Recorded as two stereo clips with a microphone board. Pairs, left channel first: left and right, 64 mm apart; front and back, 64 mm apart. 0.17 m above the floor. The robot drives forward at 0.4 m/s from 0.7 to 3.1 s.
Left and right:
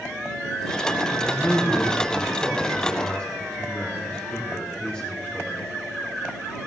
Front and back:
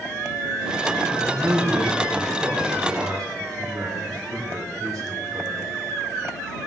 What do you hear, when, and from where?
1.1 s a man speaking: 145° left, 2.5 m; by 5.7 s 155° left, 3 m